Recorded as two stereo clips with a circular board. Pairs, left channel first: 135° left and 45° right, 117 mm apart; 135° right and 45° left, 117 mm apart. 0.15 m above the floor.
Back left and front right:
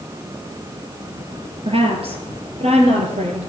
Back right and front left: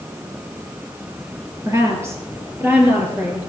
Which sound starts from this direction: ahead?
A woman speaking, at 1.6 s.